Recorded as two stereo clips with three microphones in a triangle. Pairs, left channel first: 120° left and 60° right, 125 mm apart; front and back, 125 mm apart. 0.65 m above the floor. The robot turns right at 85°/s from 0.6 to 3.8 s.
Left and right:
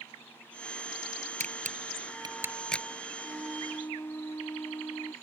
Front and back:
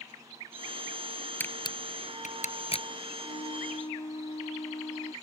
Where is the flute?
Straight ahead; by 5.1 s 50° left.